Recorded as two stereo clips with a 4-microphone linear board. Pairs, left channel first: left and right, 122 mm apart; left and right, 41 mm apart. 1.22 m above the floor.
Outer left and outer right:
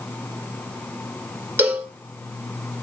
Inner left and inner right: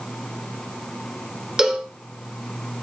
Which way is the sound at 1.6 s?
20° right (ahead or behind).